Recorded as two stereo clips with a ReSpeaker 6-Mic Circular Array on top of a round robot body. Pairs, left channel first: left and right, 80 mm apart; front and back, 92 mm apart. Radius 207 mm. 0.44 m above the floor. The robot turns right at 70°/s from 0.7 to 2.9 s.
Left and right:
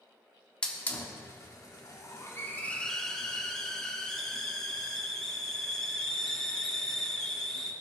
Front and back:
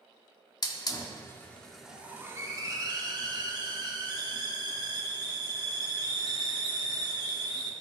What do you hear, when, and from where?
0.6 s a hiss: 15° left, 1.7 m; by 7.7 s 170° left, 1.7 m